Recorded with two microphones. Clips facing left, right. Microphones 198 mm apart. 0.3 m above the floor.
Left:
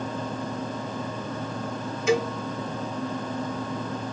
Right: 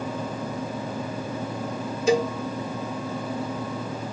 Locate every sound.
2.1 s a cowbell: 35° right (ahead or behind), 0.9 m